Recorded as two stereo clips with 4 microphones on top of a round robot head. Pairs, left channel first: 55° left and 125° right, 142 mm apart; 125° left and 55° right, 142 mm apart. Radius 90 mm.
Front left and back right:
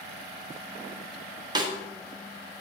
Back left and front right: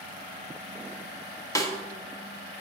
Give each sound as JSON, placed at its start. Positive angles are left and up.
{"t": 1.6, "sound": "a snare drum", "azimuth_deg": -175, "distance_m": 1.6}